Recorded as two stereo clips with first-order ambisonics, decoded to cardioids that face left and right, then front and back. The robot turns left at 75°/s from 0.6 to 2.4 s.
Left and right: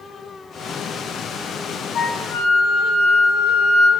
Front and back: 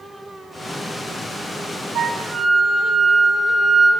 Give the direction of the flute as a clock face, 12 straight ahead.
8 o'clock.